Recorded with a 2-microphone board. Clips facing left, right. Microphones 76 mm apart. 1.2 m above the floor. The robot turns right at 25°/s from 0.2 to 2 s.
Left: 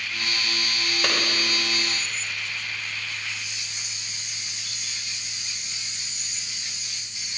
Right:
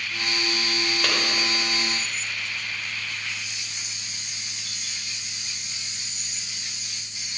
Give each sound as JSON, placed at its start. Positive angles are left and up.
{"t": 1.0, "sound": "a clap", "side_deg": 5, "distance_m": 4.5}